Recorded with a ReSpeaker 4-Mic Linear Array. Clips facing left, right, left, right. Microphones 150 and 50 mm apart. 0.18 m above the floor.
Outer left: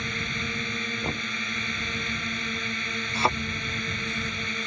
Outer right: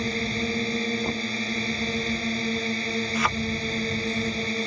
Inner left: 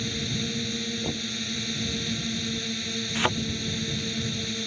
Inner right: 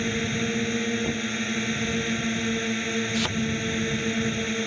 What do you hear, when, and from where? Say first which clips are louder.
0.0 s a drone: outer right 7 dB, inner right 5 dB; 35° right (ahead or behind)
1.0 s knocking: outer right 4 dB, inner right 4 dB; centre (ahead or behind)
3.1 s a thud: outer left 3 dB, inner left 6 dB; 30° left (ahead or behind)